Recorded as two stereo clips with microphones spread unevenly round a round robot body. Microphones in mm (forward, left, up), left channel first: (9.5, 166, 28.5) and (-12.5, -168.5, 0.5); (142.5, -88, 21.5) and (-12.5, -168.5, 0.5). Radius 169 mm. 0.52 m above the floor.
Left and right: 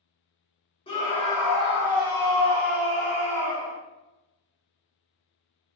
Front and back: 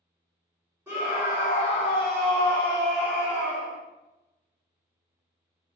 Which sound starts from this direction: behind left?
A scream, at 0.9 s.